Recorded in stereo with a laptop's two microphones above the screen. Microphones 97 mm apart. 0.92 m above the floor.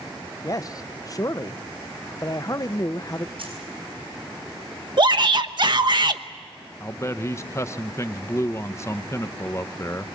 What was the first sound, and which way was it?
A man speaking, 35° left (ahead or behind).